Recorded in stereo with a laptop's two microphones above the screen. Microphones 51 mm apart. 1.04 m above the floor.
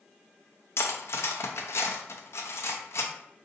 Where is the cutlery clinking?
60° left (ahead or behind), 0.6 m.